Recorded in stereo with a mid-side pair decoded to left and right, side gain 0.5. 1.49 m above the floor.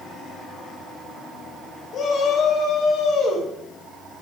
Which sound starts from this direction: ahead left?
A shout, at 1.9 s.